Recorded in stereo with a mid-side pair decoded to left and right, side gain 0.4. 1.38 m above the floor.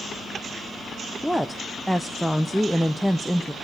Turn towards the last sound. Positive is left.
turn(degrees=0)